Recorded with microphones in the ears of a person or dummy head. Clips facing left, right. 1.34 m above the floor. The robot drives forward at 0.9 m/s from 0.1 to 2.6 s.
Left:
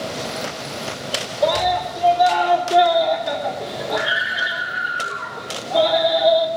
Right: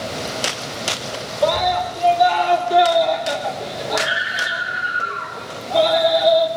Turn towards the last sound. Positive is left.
turn(degrees=5)  # may be behind; listen again after turning